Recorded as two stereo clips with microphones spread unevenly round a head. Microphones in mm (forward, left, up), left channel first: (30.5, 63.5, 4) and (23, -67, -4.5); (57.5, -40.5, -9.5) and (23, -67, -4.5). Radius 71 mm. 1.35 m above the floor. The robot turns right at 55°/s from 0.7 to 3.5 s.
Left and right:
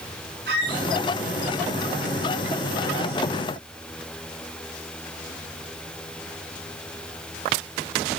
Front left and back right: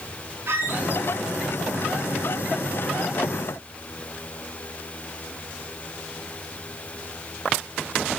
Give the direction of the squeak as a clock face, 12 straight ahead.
4 o'clock.